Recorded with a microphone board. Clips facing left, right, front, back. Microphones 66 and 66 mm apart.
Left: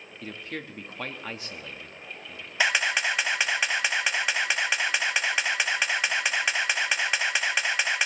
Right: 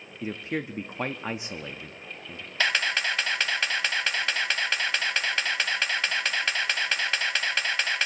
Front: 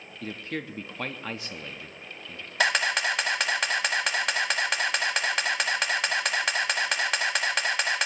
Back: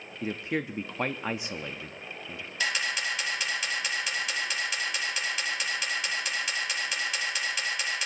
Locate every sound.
0.2 s a man speaking: 135° right, 0.5 m
2.6 s a camera shutter: 15° left, 0.9 m